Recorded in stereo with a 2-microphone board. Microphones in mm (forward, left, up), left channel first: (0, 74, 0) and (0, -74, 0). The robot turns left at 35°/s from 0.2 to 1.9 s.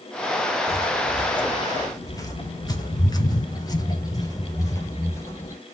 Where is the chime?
No chime in this recording.